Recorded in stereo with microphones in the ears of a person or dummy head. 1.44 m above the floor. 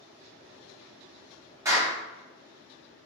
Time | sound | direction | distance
1.6 | a clap | 25° right (ahead or behind) | 1.9 m